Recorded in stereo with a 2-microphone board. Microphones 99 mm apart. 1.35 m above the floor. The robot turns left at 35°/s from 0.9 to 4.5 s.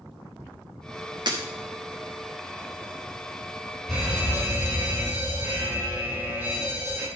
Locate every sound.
1.3 s breaking glass: 45° right (ahead or behind), 0.9 m
3.9 s an alarm: centre (ahead or behind), 3.5 m; by 7.1 s 20° right (ahead or behind), 3.5 m